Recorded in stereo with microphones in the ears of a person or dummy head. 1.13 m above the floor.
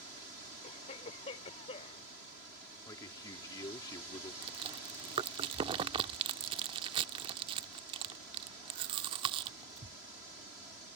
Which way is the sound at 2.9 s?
25° left (ahead or behind).